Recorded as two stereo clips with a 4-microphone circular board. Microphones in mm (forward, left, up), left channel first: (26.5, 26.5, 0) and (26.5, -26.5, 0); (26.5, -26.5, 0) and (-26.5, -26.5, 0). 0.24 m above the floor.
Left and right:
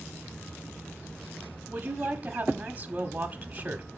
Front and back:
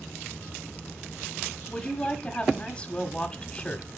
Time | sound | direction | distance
1.7 | a woman speaking | 50° right | 1.3 m